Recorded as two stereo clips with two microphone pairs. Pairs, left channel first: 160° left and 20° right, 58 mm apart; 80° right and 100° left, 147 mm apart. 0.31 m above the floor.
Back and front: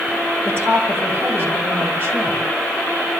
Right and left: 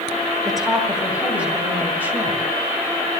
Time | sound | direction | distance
0.5 | a woman speaking | 10° left | 2 m